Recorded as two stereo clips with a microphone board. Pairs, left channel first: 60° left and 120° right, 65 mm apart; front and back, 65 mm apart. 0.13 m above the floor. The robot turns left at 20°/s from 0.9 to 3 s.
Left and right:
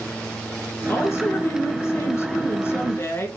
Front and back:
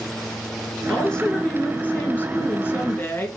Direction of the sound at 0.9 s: 75° left.